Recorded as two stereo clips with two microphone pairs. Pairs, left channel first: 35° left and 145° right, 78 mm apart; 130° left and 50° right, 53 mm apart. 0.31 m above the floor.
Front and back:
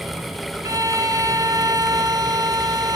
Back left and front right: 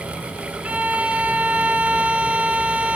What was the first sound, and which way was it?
A violin, 110° right.